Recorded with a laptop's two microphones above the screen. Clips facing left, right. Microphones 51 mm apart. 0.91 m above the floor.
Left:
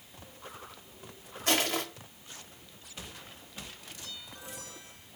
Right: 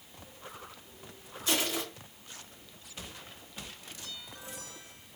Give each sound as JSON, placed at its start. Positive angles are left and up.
{"t": 1.5, "sound": "crushing", "side_deg": 60, "distance_m": 1.0}